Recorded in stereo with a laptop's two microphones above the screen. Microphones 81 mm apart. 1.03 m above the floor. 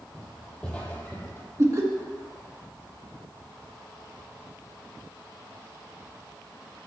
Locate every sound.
0.1 s footsteps: 5° left (ahead or behind), 1.5 m; by 1.5 s 30° left (ahead or behind), 1.4 m
1.6 s laughter: 40° right (ahead or behind), 1.3 m